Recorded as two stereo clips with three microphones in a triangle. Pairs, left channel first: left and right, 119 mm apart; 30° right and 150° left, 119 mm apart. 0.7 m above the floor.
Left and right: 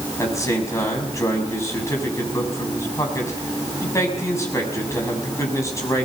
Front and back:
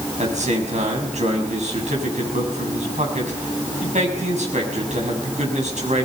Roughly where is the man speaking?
Behind left.